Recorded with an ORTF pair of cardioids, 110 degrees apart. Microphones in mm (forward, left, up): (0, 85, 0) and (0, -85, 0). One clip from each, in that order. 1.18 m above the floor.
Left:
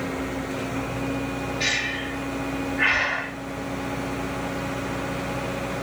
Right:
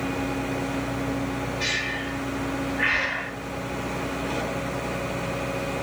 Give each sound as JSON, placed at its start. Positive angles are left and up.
{"t": 1.6, "sound": "breathing", "azimuth_deg": 20, "distance_m": 2.5}